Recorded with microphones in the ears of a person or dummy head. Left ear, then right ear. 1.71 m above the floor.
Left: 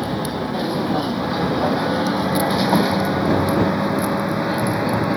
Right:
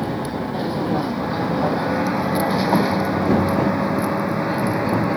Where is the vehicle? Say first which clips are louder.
Left 1 dB; 5° left (ahead or behind); by 5.2 s centre (ahead or behind).